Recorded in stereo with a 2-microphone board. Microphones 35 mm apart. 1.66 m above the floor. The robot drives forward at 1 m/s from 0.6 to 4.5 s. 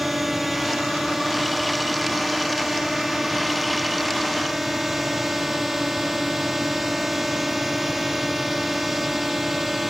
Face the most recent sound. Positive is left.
turn(degrees=-5)  # may be behind; listen again after turning